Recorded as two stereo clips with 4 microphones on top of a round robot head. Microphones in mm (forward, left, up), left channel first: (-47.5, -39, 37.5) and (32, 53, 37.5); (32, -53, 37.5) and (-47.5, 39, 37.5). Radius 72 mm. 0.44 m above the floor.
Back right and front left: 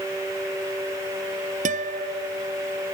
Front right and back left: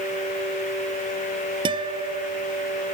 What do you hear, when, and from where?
1.6 s a guitar: 75° left